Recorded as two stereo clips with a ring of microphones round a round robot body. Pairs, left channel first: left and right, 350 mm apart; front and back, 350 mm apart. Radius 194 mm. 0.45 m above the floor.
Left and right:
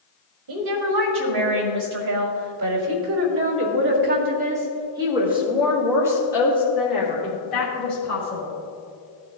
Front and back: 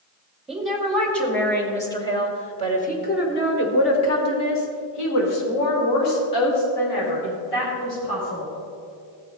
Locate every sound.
0.5 s a woman speaking: 90° right, 2.5 m; by 8.5 s 30° left, 3 m